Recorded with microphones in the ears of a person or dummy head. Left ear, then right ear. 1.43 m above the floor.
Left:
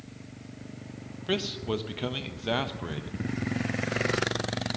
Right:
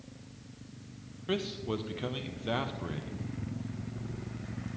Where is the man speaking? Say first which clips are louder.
Left 4 dB; 10° left (ahead or behind), 0.5 m.